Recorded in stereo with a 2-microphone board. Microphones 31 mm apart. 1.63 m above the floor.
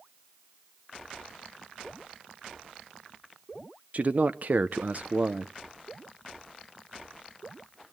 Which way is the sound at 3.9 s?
50° right (ahead or behind).